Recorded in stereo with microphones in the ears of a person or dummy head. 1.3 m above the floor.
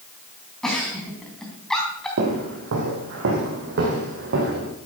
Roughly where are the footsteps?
Right.